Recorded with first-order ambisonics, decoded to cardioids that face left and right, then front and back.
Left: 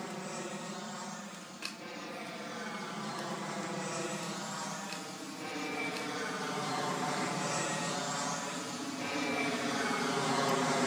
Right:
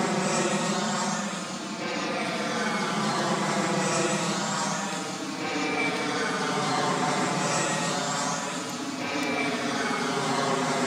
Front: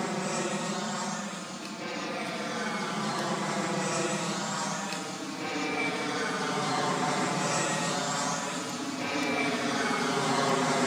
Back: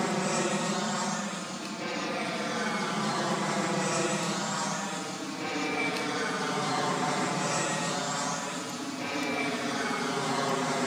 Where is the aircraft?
100° right; by 10.9 s 55° right.